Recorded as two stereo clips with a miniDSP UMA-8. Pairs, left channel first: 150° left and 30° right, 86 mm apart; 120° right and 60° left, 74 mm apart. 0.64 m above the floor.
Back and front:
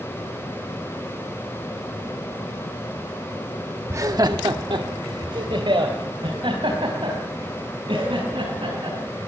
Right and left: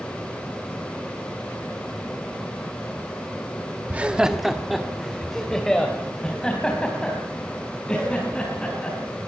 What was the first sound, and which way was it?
Laughter, 5° left.